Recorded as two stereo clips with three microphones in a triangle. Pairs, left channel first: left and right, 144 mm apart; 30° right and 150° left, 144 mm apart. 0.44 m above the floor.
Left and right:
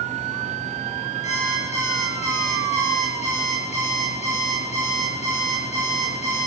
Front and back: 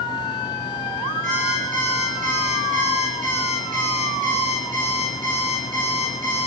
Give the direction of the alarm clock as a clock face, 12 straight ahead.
8 o'clock.